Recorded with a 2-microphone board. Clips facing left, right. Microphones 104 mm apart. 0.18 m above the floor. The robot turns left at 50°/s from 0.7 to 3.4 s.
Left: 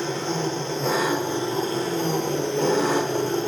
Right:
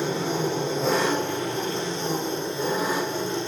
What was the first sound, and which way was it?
An engine running, 170° right.